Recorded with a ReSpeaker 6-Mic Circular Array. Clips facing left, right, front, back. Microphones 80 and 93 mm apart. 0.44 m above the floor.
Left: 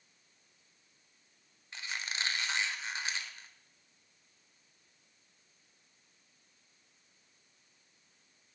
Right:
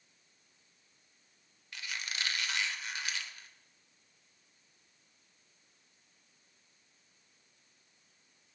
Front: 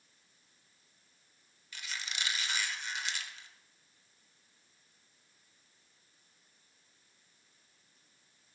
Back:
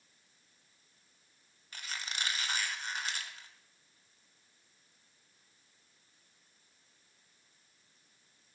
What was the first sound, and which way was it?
A squeak, 145° left.